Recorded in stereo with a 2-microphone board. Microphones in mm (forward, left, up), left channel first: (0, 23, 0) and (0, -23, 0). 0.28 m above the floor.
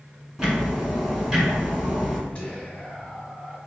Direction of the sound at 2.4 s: 25° left (ahead or behind).